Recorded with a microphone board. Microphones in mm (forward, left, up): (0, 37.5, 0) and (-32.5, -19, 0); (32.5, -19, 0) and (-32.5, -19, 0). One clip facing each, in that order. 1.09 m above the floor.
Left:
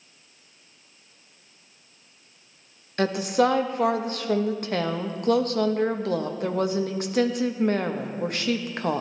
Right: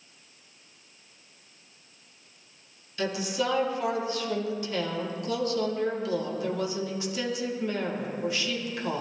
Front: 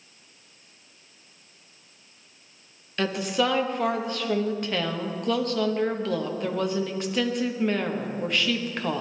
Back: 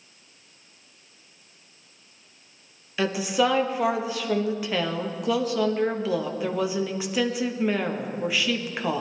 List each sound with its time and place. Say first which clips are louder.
3.0 s a woman speaking: left 7 dB, back 2 dB; 95° left, 0.9 m